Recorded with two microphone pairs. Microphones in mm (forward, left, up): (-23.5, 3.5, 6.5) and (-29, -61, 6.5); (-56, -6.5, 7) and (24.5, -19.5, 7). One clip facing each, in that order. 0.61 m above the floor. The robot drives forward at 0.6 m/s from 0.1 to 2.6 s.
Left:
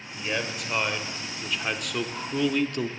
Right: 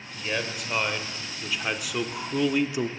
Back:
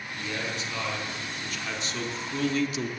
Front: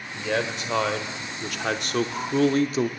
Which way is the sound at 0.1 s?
5° right.